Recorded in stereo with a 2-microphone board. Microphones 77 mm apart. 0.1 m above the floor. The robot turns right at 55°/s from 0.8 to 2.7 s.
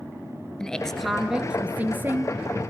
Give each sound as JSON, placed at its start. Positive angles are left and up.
{"t": 0.6, "sound": "a woman speaking", "azimuth_deg": 165, "distance_m": 2.0}